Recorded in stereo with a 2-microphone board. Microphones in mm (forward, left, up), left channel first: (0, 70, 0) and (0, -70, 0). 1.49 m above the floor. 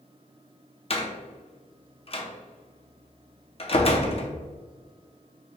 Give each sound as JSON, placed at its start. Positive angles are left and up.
{"t": 0.9, "sound": "a door slam", "side_deg": 45, "distance_m": 0.6}